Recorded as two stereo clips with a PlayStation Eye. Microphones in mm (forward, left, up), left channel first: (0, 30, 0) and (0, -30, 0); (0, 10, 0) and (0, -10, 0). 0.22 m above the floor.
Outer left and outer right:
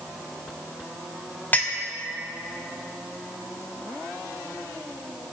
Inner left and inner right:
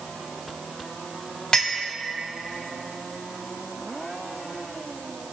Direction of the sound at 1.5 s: 35° left (ahead or behind).